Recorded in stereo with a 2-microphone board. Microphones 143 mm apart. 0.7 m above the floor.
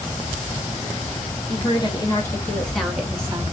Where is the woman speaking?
35° left (ahead or behind), 1.1 m; by 3.4 s 25° right (ahead or behind), 0.7 m.